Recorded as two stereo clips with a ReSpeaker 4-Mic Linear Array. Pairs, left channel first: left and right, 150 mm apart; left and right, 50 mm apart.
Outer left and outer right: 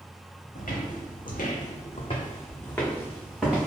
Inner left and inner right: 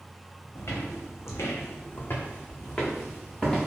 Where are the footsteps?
70° left (ahead or behind), 1.0 m; by 3.7 s 5° right (ahead or behind), 1.4 m.